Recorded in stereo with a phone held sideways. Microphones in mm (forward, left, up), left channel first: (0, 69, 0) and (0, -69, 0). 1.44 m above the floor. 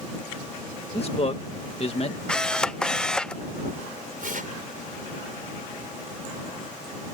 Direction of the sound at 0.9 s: 45° left (ahead or behind).